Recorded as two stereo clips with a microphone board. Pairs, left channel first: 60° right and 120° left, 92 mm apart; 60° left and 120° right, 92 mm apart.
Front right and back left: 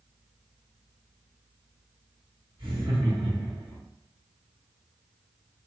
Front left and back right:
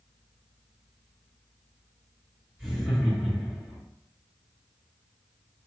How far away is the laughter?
About 1.6 m.